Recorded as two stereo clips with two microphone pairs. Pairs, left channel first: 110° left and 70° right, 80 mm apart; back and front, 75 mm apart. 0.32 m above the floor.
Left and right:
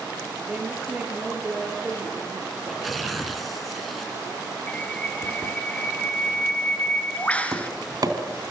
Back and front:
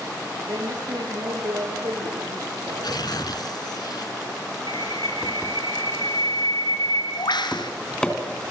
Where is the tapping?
105° right, 3.5 m.